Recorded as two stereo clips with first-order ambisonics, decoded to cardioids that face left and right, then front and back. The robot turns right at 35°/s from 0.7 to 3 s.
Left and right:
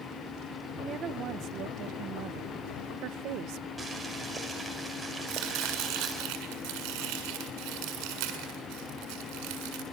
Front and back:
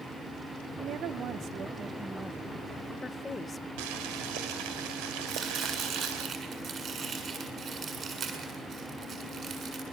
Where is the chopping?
120° right, 7 m.